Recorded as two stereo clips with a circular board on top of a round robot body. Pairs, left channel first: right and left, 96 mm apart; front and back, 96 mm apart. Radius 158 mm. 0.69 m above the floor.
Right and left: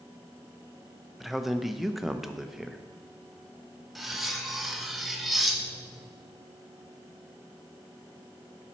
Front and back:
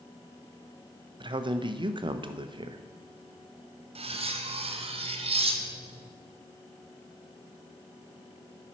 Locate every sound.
1.2 s a man speaking: straight behind, 0.7 m
4.0 s cutlery clinking: straight behind, 0.8 m